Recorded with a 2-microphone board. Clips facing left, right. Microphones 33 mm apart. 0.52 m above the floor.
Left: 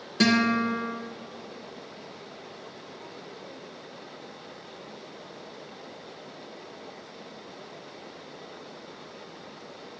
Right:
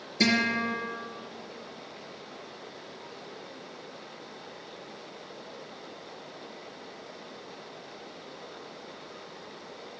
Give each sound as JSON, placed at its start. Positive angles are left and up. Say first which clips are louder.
{"t": 0.2, "sound": "a guitar", "louder": "left 3 dB", "side_deg": 55, "distance_m": 2.5}